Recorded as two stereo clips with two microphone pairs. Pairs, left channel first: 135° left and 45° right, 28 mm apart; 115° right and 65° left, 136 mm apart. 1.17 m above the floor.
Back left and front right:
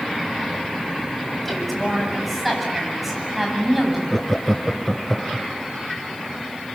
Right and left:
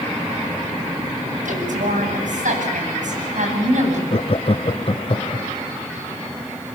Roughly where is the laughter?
Behind right.